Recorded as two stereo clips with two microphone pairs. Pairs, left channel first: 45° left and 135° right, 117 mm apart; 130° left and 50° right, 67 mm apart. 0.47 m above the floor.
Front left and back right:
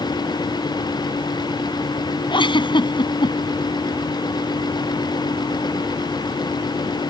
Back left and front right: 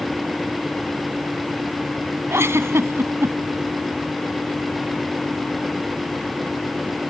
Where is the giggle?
Straight ahead.